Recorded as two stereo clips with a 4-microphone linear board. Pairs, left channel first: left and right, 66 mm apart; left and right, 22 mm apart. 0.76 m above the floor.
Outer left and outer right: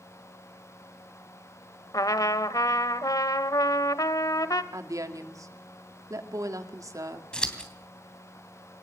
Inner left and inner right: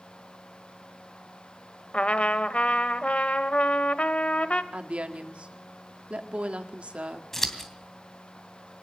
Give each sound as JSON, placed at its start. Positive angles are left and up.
{"t": 1.9, "sound": "a trumpet", "side_deg": 65, "distance_m": 1.0}
{"t": 4.7, "sound": "a woman speaking", "side_deg": -60, "distance_m": 2.0}
{"t": 7.3, "sound": "scissors", "side_deg": 15, "distance_m": 2.5}